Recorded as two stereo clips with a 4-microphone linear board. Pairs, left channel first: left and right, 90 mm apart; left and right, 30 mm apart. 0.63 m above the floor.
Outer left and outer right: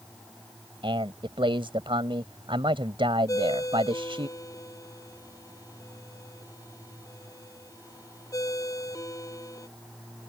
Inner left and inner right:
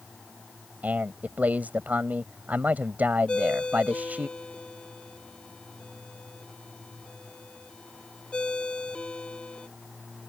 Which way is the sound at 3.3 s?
40° left (ahead or behind).